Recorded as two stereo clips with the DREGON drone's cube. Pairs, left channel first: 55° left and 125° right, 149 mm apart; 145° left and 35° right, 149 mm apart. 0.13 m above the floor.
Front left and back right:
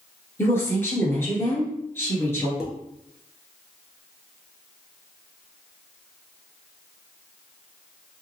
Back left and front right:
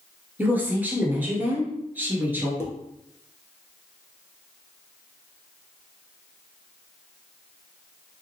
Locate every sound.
0.4 s a woman speaking: 20° left, 1.2 m
2.6 s dishes clattering: 160° left, 0.8 m